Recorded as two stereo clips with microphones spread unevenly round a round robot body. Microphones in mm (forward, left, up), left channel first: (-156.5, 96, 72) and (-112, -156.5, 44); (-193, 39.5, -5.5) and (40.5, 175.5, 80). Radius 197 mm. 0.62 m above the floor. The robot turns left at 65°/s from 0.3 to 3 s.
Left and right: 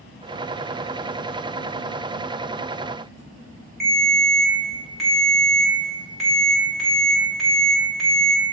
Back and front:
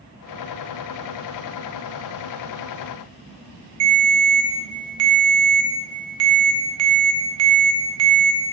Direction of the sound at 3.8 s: 5° left.